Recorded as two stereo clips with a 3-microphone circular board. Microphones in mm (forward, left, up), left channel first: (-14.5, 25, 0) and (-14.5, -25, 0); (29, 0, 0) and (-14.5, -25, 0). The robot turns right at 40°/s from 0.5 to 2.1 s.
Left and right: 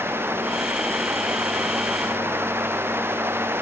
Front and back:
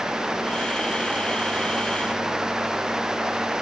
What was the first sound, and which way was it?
Only background noise.